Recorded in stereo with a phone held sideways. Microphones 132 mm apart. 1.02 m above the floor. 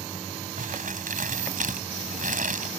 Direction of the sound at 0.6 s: 85° right.